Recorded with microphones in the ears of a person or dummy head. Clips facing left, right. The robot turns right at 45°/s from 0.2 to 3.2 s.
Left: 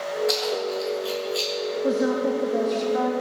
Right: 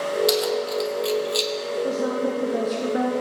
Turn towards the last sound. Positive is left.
turn(degrees=-145)